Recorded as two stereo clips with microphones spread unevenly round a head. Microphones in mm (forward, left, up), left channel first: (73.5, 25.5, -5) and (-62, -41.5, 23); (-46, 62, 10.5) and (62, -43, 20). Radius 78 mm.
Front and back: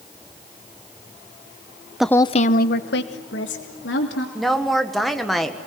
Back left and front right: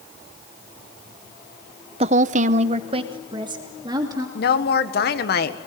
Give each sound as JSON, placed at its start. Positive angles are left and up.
{"t": 2.0, "sound": "a woman speaking", "azimuth_deg": -80, "distance_m": 0.7}
{"t": 4.3, "sound": "a woman speaking", "azimuth_deg": 115, "distance_m": 1.6}